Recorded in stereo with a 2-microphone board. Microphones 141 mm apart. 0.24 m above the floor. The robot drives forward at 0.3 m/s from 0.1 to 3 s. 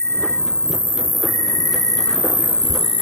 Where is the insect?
15° left (ahead or behind), 1.3 m; by 3.0 s 45° left (ahead or behind), 0.5 m.